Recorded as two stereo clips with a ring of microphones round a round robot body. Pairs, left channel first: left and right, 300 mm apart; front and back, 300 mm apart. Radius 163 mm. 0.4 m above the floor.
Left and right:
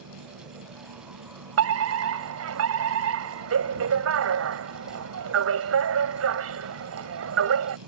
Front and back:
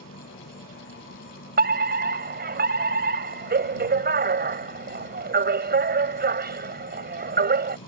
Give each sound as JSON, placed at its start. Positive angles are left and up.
{"t": 0.0, "sound": "an insect", "azimuth_deg": -60}
{"t": 1.6, "sound": "a fire alarm", "azimuth_deg": -130}